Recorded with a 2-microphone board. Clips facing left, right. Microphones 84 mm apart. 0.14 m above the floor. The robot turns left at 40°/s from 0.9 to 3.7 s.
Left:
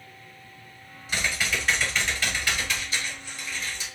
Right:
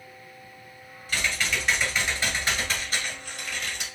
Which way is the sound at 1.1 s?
25° left.